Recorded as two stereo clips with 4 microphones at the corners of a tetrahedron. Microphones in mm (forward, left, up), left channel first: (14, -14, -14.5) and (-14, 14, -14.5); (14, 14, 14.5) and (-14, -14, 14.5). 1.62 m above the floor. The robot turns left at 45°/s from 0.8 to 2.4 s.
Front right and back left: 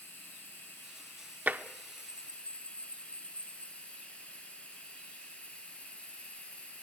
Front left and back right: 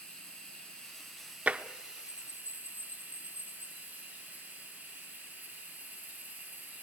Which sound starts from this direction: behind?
Tapping, at 1.5 s.